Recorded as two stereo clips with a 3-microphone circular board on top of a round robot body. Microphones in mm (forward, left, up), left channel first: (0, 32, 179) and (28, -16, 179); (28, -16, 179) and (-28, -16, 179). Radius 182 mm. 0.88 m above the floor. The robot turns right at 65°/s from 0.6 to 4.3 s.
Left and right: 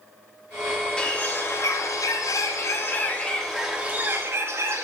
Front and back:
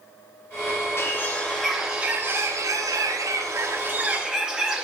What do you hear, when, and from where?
1.0 s a bird: 45° left, 1.5 m; by 4.8 s 100° right, 1.5 m